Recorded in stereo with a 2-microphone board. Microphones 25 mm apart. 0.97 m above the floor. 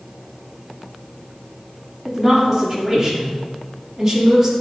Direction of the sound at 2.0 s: 20° right (ahead or behind).